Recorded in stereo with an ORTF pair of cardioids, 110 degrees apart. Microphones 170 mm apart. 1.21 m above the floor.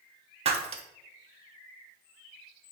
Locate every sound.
0.5 s breaking glass: 35° right, 1.4 m